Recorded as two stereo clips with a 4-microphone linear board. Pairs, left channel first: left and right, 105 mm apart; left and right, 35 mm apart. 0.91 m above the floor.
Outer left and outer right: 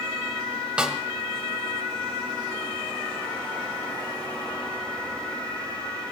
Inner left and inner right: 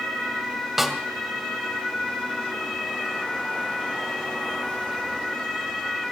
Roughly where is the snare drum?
Centre.